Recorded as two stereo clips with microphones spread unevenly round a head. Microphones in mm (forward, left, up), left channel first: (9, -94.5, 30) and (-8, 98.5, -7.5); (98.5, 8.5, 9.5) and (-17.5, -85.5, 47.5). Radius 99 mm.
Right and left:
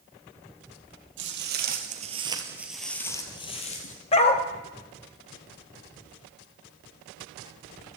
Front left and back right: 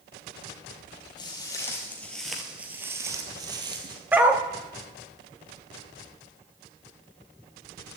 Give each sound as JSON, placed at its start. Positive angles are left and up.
{"t": 1.2, "sound": "footsteps", "azimuth_deg": 115, "distance_m": 2.0}
{"t": 4.1, "sound": "a dog barking", "azimuth_deg": -85, "distance_m": 1.0}